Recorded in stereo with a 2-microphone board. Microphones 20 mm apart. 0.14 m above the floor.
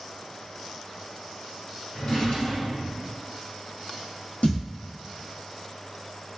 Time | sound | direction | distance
1.9 | a drawer | 60° left (ahead or behind) | 1.7 m
4.4 | a thud | 80° left | 1.0 m